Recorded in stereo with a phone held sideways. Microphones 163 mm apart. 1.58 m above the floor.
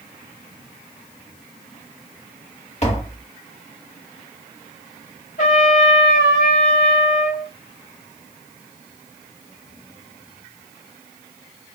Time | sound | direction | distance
2.8 | tapping | 45° left (ahead or behind) | 1.7 m
5.4 | a trumpet | 50° left (ahead or behind) | 1.9 m